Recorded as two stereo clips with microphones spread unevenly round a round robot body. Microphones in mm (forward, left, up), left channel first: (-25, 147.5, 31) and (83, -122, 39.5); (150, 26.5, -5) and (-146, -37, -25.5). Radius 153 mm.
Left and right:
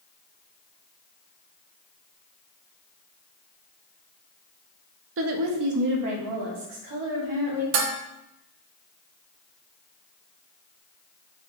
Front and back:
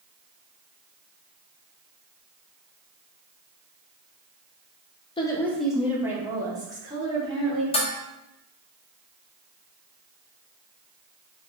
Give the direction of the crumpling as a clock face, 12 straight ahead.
I don't hear crumpling.